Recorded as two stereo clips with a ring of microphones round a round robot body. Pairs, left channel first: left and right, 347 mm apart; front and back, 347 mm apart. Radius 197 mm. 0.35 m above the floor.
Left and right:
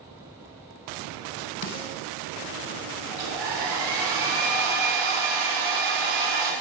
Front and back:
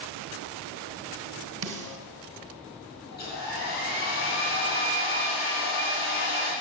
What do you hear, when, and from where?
1.6 s a snare drum: 130° left, 1.7 m
3.1 s a hair dryer: 65° right, 3 m